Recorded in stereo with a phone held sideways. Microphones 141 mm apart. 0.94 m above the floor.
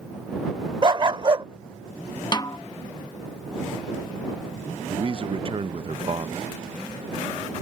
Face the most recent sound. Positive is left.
turn(degrees=-40)  # may be behind; listen again after turning